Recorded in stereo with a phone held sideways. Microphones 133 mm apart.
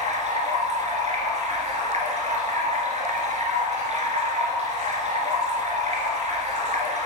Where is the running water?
60° right (ahead or behind), 1.8 m.